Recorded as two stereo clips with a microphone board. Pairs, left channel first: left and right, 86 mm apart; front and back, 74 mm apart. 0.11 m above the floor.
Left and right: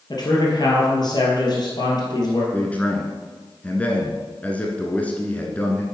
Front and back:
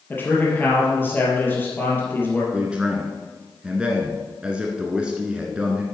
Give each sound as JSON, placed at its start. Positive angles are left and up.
{"t": 0.1, "sound": "a man speaking", "azimuth_deg": 60, "distance_m": 2.5}
{"t": 2.5, "sound": "a man speaking", "azimuth_deg": 130, "distance_m": 1.3}